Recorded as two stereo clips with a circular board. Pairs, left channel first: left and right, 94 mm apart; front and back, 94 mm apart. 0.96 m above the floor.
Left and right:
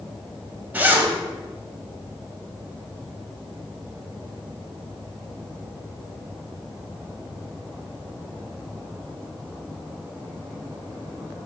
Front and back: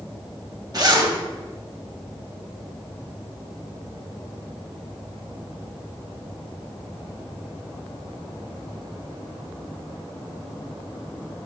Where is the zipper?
155° right, 1.0 m.